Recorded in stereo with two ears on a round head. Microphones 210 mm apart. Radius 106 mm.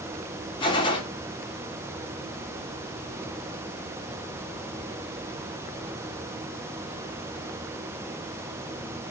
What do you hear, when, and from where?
0.6 s a gunshot: 20° left (ahead or behind), 2.5 m